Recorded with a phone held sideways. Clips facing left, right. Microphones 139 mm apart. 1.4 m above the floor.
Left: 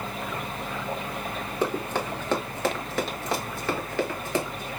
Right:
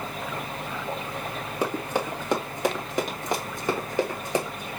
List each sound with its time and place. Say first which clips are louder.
1.6 s running footsteps: even; 10° right (ahead or behind), 1.7 m; by 4.7 s 15° right (ahead or behind), 1.8 m